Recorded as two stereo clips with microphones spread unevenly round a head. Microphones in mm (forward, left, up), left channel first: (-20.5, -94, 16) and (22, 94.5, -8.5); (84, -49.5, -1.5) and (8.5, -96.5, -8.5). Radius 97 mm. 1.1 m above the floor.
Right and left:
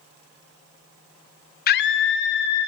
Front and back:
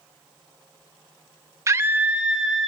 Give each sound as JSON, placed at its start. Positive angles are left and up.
{"t": 1.7, "sound": "a scream", "azimuth_deg": -125, "distance_m": 0.6}